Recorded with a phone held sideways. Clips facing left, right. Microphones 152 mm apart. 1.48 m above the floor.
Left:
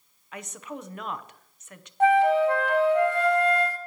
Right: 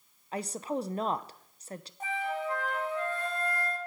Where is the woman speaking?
35° right (ahead or behind), 0.7 m.